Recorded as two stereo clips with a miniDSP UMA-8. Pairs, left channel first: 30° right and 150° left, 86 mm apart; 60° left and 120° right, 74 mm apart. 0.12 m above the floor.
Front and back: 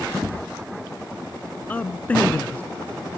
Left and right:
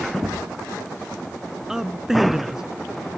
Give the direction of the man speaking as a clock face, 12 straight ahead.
2 o'clock.